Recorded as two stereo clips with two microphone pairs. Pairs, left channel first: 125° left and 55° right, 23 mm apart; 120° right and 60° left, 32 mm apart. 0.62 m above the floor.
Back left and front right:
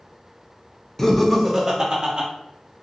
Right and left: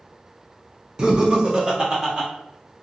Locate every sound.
1.0 s laughter: 90° left, 0.6 m; by 2.3 s straight ahead, 0.9 m